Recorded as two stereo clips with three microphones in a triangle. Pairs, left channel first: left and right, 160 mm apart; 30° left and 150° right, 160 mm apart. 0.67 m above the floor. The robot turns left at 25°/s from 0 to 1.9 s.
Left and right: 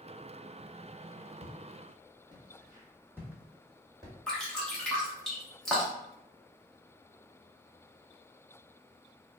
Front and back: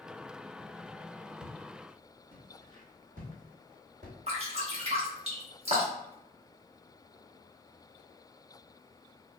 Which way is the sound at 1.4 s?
100° right.